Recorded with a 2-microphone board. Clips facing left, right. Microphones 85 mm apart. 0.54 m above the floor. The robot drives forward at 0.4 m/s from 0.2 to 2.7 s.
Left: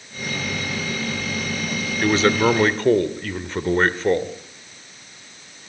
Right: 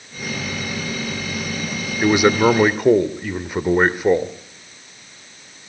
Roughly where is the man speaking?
Centre.